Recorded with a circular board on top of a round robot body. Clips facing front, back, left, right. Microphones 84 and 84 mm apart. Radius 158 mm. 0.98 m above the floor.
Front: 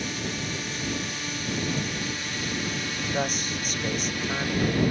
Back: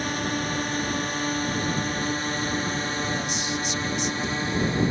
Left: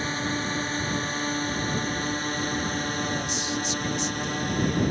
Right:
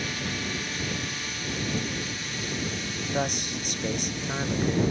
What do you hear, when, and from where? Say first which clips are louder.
0.0 s a drone: back 5 dB, left 4 dB; 145° left; by 4.9 s 120° left
3.1 s a man speaking: even, even; 50° right